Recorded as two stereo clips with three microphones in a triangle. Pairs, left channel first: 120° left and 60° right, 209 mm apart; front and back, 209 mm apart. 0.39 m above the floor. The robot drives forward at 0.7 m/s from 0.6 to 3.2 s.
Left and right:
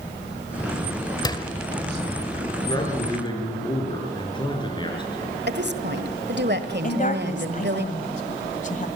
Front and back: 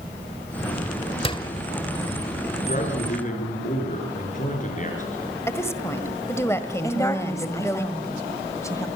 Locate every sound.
1.2 s a door slam: 55° left, 1.3 m; by 1.5 s 65° left, 1.3 m
2.7 s a man speaking: 50° left, 6.5 m
5.5 s a woman speaking: 75° right, 1.6 m
6.8 s a woman speaking: 75° left, 1.9 m